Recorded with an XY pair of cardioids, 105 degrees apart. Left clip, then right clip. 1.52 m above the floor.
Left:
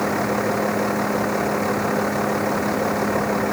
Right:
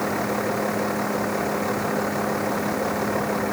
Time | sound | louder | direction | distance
0.0 | a vehicle | left 3 dB | 20° left | ?